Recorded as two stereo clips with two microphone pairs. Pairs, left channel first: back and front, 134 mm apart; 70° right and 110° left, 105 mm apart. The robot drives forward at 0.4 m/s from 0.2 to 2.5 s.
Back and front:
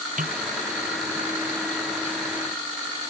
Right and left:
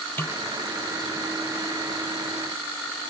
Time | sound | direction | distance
0.2 | a snare drum | straight ahead | ?